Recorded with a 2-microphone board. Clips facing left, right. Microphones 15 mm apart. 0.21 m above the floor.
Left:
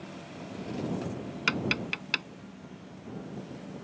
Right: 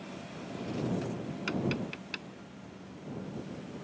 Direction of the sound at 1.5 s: 40° left (ahead or behind).